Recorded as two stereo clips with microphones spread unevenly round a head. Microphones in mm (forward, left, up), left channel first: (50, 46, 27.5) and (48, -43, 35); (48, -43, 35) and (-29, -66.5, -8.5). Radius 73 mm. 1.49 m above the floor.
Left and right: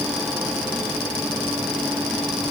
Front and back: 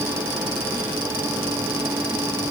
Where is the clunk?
I don't hear a clunk.